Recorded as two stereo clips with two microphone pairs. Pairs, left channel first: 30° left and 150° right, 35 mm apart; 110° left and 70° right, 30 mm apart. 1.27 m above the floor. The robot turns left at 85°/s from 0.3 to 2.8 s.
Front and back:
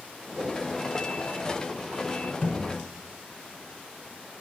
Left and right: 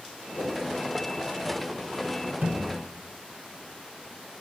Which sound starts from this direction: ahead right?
A thud, at 2.4 s.